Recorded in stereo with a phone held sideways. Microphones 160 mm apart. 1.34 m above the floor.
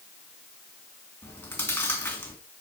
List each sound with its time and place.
1.2 s chewing: 10° left (ahead or behind), 3 m